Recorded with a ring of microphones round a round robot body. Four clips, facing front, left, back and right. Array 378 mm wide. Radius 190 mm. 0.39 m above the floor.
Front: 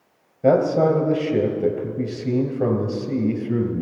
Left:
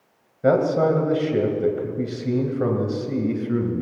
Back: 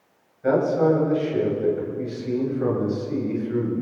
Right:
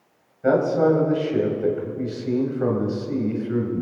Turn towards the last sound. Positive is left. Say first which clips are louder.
# even, front 3 dB
turn(degrees=35)